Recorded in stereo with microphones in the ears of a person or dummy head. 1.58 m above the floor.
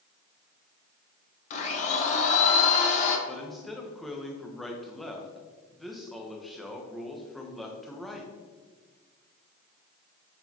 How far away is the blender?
About 1.3 m.